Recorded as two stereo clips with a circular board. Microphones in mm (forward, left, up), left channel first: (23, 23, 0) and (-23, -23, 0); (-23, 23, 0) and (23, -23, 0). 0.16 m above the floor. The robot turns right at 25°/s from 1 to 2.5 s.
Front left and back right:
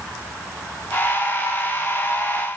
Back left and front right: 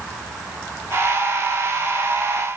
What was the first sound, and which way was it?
Only background noise.